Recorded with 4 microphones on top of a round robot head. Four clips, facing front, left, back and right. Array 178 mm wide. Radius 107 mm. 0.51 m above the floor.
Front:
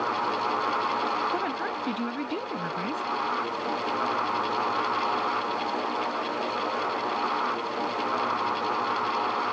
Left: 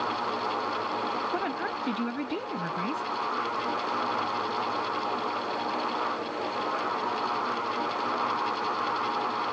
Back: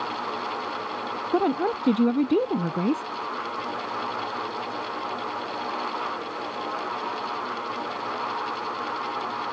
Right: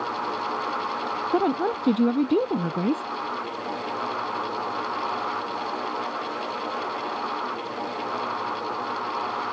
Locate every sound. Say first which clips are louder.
1.3 s a woman speaking: right 8 dB, back 6 dB; 130° right